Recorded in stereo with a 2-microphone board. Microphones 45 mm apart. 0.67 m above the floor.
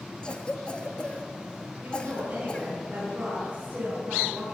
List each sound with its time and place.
0.2 s a cough: 20° left (ahead or behind), 1.1 m
1.8 s a woman speaking: 35° right (ahead or behind), 7 m